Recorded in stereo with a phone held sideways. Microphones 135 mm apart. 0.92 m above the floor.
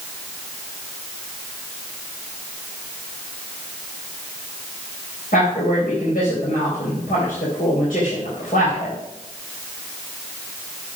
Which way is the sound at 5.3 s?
85° left.